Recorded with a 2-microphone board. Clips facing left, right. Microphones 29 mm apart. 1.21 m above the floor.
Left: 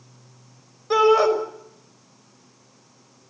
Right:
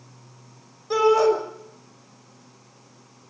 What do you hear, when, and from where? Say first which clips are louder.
0.9 s a shout: left 2 dB; 20° left (ahead or behind), 6 m